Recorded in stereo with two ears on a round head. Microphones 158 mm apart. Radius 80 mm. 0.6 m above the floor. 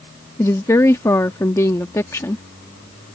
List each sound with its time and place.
0.4 s a woman speaking: 15° left (ahead or behind)